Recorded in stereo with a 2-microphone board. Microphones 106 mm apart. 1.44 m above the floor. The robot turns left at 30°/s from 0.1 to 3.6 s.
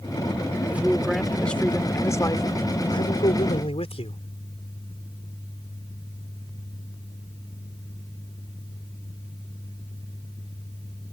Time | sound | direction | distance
0.7 | a man speaking | 165° right | ?